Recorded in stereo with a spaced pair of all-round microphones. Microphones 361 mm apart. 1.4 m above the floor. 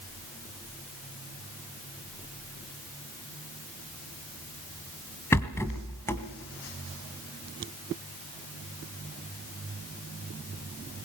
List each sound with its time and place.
5.3 s a rattle: 5° left (ahead or behind), 1.5 m